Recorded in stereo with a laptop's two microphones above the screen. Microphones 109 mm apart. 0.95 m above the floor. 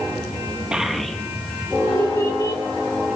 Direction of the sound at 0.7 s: 10° right (ahead or behind).